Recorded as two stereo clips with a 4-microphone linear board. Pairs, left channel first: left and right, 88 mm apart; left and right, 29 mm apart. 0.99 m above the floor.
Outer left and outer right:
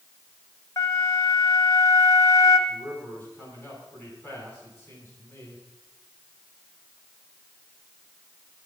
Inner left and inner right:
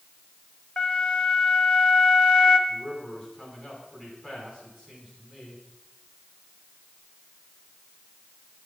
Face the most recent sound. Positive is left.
turn(degrees=25)  # may be behind; listen again after turning